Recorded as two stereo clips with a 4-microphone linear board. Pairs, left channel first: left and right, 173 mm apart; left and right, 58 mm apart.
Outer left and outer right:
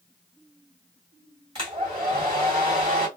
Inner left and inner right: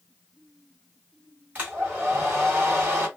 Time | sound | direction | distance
1.6 | a hair dryer | 30° right (ahead or behind) | 1.9 m